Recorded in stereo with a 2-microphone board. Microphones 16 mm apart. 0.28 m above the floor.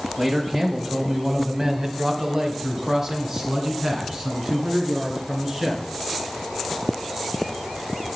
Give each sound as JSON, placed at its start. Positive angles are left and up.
{"t": 0.2, "sound": "a man speaking", "side_deg": -30, "distance_m": 1.9}